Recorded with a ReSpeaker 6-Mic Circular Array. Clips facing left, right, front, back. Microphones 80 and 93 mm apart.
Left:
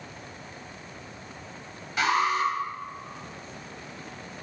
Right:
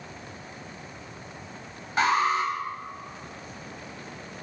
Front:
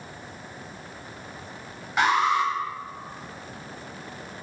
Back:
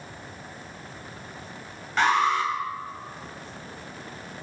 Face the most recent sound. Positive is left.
turn(degrees=-75)